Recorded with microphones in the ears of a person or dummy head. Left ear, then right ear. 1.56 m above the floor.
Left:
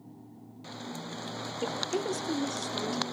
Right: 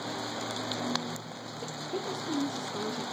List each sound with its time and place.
1.6 s a woman speaking: 75° left (ahead or behind), 0.6 m; by 3.0 s 5° left (ahead or behind), 1.5 m